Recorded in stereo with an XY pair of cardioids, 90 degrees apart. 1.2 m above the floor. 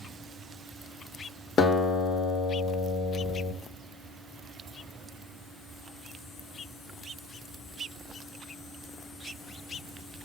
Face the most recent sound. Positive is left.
turn(degrees=60)